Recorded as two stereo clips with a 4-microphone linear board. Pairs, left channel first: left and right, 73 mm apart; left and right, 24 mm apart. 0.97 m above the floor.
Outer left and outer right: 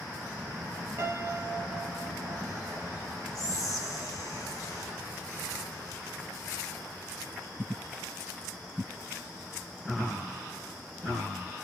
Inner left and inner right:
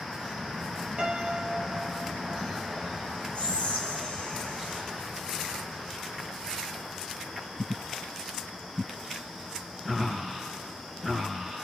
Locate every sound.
1.0 s a piano: 45° right (ahead or behind), 0.6 m
3.4 s whispering: 50° left (ahead or behind), 0.7 m